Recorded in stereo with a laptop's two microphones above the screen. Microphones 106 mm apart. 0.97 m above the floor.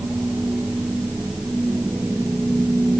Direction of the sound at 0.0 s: 15° right (ahead or behind).